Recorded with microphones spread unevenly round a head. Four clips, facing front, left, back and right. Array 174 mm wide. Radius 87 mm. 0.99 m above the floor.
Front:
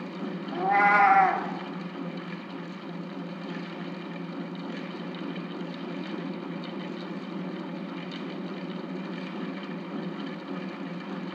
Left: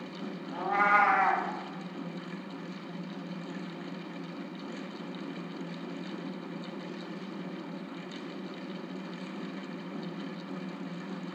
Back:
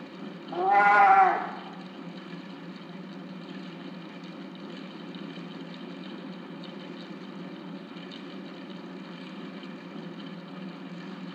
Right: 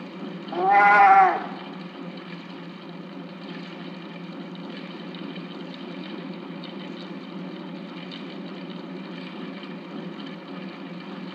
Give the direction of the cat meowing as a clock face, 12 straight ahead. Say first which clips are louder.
Right 10 dB, back 2 dB; 3 o'clock.